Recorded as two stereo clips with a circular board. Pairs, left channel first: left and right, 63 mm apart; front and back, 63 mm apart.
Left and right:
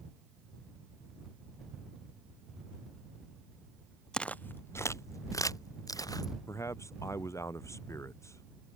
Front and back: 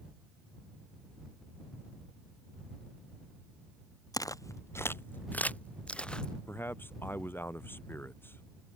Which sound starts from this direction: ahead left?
A man speaking, at 6.5 s.